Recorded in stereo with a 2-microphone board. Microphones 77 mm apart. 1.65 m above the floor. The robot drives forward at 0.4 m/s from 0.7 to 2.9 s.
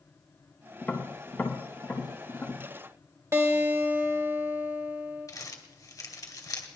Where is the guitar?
35° right (ahead or behind), 1.9 m.